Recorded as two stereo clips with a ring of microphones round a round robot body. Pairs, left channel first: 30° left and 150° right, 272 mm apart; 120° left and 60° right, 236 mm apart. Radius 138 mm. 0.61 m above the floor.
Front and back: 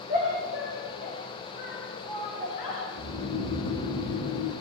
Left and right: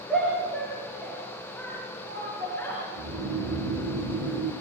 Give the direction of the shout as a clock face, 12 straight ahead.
11 o'clock.